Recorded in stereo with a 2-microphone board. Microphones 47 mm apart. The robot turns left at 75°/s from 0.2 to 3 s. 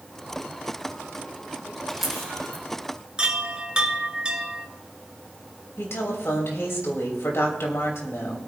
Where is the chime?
20° right (ahead or behind), 1.6 m.